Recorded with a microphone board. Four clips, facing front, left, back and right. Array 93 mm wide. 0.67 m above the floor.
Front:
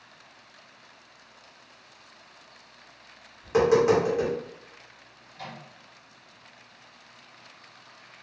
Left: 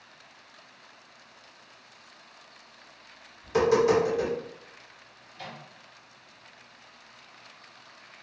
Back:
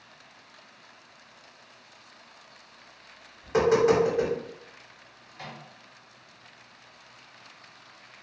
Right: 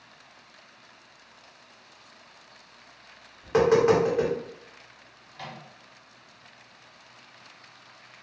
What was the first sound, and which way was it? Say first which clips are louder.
Tapping: right 2 dB, front 1 dB; 80° right.